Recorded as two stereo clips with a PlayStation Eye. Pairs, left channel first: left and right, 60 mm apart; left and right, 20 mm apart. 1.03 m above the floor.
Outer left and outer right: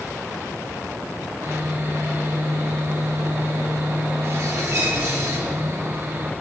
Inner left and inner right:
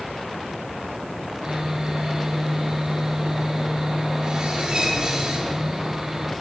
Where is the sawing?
50° right (ahead or behind), 1.3 m.